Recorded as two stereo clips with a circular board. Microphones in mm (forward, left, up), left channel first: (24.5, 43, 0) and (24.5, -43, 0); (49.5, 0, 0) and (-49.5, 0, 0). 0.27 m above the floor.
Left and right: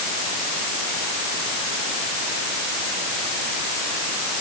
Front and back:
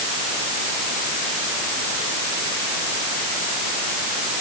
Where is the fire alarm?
No fire alarm in this recording.